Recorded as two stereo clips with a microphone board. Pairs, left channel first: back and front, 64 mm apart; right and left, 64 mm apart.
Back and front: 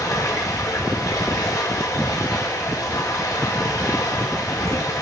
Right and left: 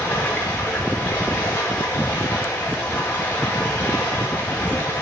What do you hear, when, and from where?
0.0 s running water: 150° right, 5 m